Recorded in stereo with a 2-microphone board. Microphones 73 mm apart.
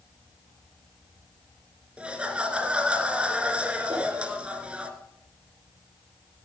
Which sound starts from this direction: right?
A whoosh, at 3.9 s.